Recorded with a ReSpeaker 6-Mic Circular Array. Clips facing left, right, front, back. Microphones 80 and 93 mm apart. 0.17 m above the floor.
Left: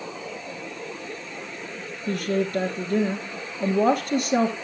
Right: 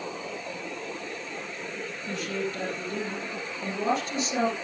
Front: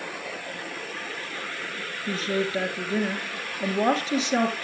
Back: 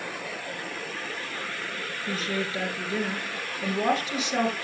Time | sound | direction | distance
2.1 | a woman speaking | 60° left | 2.5 m